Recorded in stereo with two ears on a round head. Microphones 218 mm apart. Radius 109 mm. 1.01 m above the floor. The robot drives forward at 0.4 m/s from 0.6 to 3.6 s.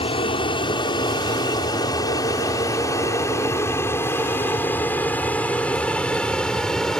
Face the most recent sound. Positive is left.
turn(degrees=0)  # may be behind; listen again after turning